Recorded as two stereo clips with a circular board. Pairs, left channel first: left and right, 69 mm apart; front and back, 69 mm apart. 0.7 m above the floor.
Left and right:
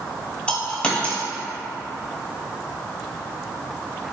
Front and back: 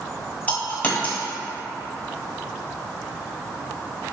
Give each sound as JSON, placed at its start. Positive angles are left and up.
{"t": 0.5, "sound": "a dropped coin", "azimuth_deg": 35, "distance_m": 0.7}